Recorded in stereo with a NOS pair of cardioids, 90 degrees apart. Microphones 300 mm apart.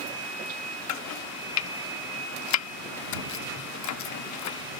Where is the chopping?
65° left.